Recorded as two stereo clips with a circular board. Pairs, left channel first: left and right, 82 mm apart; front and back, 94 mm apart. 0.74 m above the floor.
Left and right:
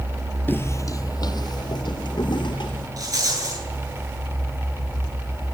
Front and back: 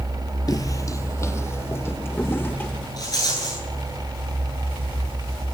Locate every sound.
0.5 s footsteps: 30° left, 1.0 m; by 2.9 s 70° left, 4 m
3.0 s a rattle: 45° right, 10 m